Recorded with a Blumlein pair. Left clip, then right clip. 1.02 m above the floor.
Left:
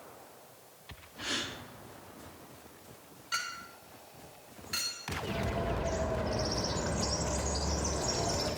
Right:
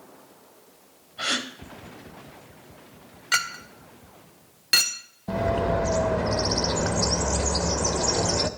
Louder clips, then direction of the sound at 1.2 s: Right 8 dB; 60° right.